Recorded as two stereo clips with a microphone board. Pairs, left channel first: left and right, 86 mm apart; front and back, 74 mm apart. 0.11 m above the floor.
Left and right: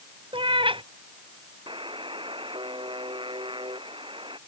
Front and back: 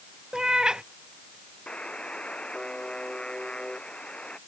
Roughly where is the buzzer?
Right.